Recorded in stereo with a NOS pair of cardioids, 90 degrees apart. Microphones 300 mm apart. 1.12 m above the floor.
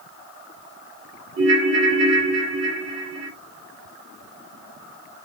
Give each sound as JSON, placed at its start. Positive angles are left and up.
{"t": 1.4, "sound": "a ringtone", "azimuth_deg": -50, "distance_m": 1.8}